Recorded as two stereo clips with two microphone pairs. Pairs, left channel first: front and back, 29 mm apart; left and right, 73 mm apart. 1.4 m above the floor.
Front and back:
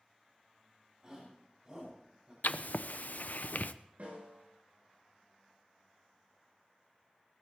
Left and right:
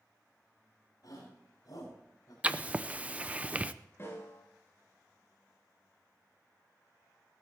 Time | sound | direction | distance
1.0 | a shout | 120° left | 8.5 m
2.4 | writing | 15° right | 0.6 m
4.0 | a snare drum | 145° left | 8.5 m